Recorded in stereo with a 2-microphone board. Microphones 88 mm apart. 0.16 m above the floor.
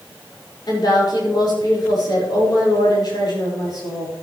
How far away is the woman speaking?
About 6 m.